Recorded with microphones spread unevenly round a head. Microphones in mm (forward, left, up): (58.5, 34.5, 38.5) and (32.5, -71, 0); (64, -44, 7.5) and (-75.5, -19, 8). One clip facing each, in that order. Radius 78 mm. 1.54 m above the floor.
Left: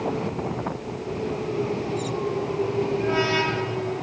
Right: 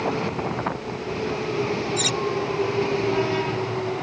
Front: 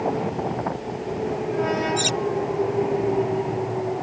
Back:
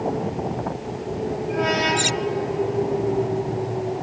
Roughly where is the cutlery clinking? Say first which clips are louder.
Right 1 dB, even; right.